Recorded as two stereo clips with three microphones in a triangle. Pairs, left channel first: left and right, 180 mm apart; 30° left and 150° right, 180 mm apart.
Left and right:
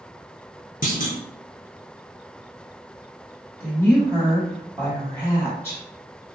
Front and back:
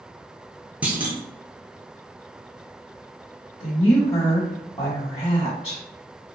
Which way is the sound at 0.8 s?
130° left.